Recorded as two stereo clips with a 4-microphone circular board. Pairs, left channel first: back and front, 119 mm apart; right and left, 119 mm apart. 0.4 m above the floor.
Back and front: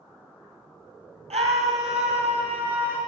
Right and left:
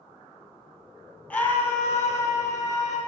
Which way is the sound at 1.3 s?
15° right.